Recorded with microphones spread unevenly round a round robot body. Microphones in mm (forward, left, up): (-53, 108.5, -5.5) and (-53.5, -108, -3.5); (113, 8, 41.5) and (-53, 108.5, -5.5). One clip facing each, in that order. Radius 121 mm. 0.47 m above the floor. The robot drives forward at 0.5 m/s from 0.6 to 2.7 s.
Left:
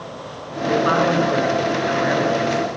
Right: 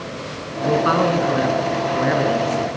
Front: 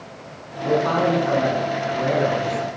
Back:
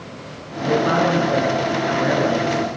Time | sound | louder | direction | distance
0.6 | a man speaking | even, back 1 dB | 125° right | 6 m